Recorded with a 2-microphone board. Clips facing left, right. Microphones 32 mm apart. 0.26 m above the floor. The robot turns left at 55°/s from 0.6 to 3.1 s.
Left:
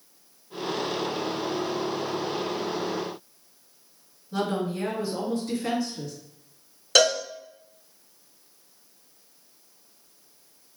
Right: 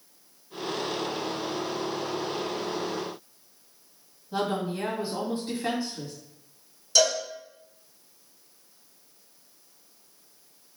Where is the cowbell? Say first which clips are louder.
Left 3 dB; 80° left, 0.6 m.